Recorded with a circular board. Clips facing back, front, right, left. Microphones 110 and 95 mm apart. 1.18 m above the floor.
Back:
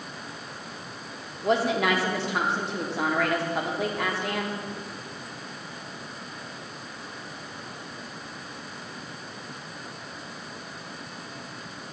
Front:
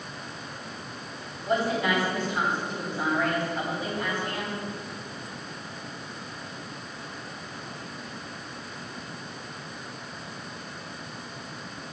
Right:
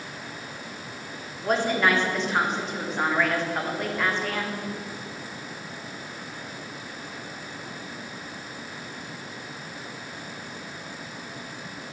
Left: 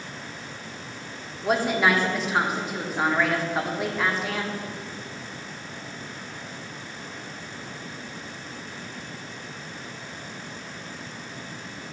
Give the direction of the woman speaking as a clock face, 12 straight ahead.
6 o'clock.